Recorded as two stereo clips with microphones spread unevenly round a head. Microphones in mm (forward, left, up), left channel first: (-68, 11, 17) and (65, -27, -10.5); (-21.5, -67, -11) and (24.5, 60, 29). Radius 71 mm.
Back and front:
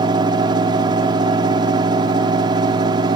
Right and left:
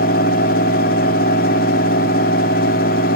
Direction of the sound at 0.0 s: 80° right.